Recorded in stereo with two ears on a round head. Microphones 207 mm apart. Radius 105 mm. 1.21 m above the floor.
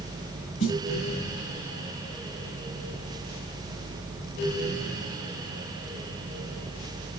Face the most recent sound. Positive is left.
turn(degrees=60)  # may be behind; listen again after turning